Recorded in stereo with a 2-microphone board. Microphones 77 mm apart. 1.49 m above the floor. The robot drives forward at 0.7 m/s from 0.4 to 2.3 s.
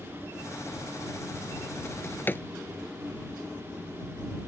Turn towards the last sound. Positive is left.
turn(degrees=25)  # may be behind; listen again after turning